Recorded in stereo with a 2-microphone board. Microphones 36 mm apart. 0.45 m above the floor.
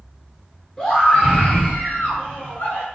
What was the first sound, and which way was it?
A scream, 15° left (ahead or behind).